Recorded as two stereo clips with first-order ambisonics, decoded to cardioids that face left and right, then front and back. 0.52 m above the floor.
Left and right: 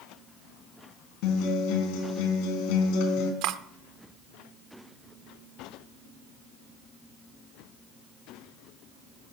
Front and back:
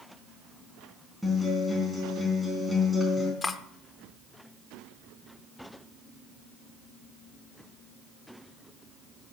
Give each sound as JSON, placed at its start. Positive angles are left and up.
{"t": 1.2, "sound": "a guitar", "azimuth_deg": 90, "distance_m": 3.5}
{"t": 3.4, "sound": "cutlery clinking", "azimuth_deg": -75, "distance_m": 0.6}